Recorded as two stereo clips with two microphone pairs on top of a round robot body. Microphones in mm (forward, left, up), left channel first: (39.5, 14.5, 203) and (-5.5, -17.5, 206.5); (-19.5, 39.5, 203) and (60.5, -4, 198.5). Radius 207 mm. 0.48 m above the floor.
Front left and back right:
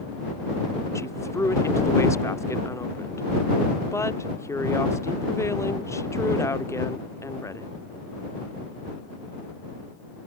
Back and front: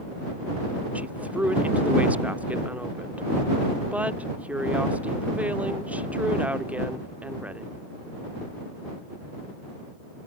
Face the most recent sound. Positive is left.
turn(degrees=45)